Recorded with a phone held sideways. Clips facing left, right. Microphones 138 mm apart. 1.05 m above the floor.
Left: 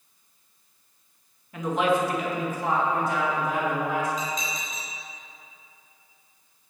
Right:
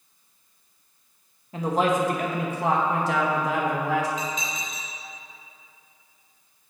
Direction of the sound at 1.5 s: 25° right (ahead or behind).